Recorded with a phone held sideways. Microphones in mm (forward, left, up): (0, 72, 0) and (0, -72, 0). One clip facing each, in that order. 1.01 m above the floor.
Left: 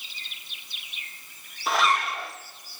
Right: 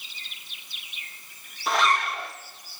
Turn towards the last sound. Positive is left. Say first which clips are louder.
# even
turn(degrees=0)  # may be behind; listen again after turning